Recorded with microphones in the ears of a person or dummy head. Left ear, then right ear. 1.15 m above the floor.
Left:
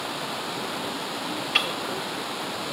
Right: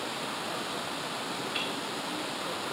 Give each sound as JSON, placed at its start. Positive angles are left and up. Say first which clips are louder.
{"t": 1.6, "sound": "ticking", "louder": "left 12 dB", "side_deg": 40, "distance_m": 0.8}